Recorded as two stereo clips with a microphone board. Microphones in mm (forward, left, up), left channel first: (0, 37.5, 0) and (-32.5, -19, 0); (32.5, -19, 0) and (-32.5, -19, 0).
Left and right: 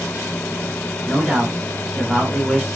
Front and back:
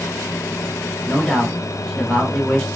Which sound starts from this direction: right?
A man speaking, at 1.1 s.